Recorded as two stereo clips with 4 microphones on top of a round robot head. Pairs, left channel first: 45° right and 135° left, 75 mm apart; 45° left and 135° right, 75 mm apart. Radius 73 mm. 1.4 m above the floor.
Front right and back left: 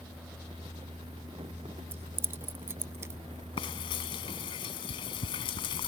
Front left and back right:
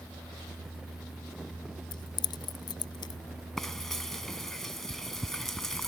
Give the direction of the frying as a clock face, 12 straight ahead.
1 o'clock.